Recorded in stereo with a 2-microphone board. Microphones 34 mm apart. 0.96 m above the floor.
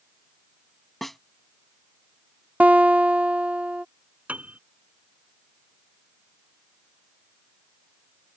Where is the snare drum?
5° left (ahead or behind).